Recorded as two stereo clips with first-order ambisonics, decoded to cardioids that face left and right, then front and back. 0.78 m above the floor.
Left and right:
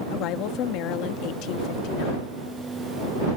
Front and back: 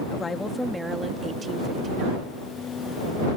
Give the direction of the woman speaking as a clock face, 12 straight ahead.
10 o'clock.